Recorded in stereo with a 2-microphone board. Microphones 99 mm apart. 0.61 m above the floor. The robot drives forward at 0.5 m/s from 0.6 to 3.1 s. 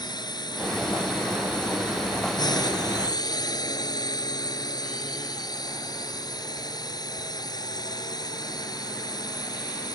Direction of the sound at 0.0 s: 45° left (ahead or behind).